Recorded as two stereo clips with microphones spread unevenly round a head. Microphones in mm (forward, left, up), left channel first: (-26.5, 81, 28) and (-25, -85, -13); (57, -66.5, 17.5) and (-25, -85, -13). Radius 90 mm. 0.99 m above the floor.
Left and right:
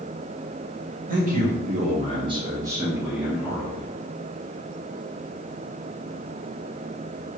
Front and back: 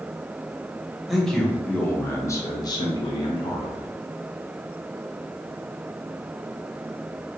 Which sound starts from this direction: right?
A man speaking, at 1.1 s.